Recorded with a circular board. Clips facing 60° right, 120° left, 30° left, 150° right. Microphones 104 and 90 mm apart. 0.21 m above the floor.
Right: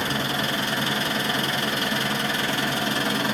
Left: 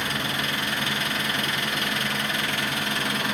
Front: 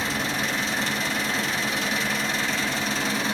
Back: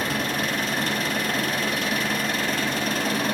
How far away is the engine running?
About 1.2 m.